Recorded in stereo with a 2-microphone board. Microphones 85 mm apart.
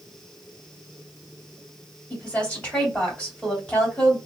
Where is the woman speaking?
15° left (ahead or behind), 2.5 m.